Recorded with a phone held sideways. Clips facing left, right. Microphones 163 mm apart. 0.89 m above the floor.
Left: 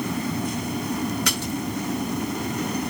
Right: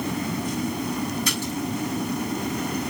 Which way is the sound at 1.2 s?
70° left (ahead or behind).